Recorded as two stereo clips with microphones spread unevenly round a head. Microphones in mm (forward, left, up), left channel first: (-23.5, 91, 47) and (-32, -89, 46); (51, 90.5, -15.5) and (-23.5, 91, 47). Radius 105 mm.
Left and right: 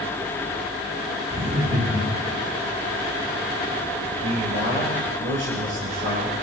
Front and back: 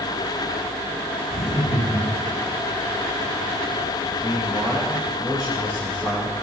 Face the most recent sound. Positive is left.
turn(degrees=-100)